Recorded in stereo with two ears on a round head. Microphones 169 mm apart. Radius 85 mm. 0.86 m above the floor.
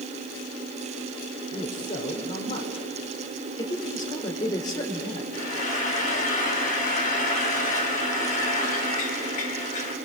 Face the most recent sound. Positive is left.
turn(degrees=40)  # may be behind; listen again after turning